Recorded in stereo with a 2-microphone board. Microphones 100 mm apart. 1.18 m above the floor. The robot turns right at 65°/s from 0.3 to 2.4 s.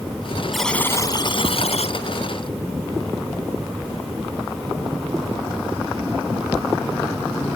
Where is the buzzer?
Straight ahead; by 2.0 s 90° left.